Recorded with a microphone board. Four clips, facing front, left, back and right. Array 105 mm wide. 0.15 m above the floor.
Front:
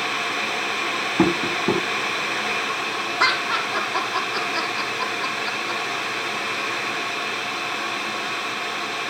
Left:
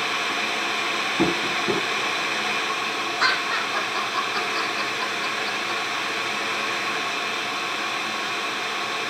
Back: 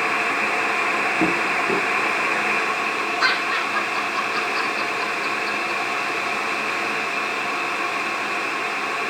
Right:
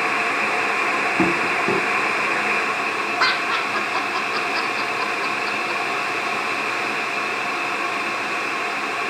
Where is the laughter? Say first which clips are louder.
Right 2 dB, front 2 dB; 60° right, 6 m.